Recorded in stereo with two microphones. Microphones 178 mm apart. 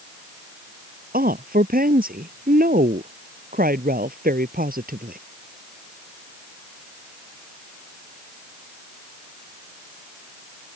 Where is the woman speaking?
60° right (ahead or behind).